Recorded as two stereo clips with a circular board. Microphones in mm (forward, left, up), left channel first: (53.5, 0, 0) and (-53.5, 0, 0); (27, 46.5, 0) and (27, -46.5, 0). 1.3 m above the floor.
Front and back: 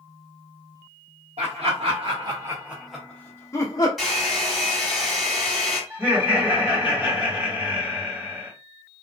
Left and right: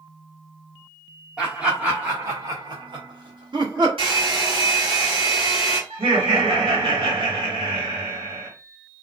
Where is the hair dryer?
90° right, 1.6 m.